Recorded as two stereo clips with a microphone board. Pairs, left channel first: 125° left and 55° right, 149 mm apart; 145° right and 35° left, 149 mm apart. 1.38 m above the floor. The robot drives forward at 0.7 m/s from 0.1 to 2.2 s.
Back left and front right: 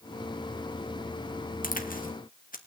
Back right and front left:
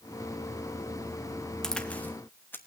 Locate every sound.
1.6 s a crack: 130° left, 1.4 m; by 2.6 s 140° left, 1.7 m